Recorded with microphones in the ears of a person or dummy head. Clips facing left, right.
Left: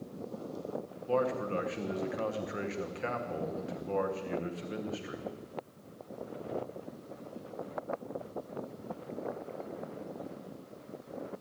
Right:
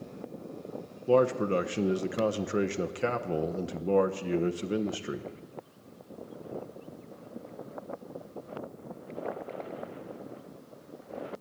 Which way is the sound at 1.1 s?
55° right (ahead or behind).